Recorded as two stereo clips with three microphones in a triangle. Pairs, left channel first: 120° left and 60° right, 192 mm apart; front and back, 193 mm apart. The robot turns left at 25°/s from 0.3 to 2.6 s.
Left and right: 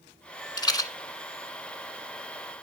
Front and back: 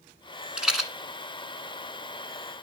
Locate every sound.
0.6 s a rattle: 100° left, 1.6 m; by 0.9 s 95° left, 1.6 m